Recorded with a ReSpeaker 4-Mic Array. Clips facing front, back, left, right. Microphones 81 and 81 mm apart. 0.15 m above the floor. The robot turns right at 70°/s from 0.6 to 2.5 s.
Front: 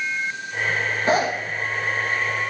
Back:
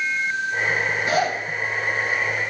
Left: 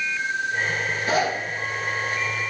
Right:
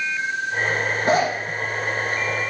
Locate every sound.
1.1 s a zipper: 55° right, 4 m; by 1.3 s 35° right, 4 m